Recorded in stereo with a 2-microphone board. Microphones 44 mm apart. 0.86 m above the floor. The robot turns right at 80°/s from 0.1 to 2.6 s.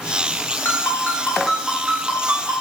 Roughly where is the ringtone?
Left.